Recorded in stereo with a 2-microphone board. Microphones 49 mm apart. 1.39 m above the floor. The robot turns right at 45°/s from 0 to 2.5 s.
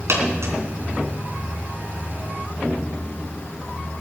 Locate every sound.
0.1 s a dropped coin: 60° right (ahead or behind), 3 m; by 0.5 s 70° right (ahead or behind), 3 m